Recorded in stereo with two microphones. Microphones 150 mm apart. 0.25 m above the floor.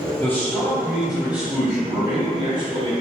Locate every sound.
0.2 s a man speaking: 15° left (ahead or behind), 1.2 m; by 2.9 s 40° right (ahead or behind), 1.4 m